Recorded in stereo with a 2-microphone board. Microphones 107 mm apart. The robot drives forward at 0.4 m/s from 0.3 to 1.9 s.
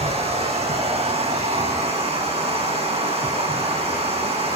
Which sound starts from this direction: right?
Running water, at 0.0 s.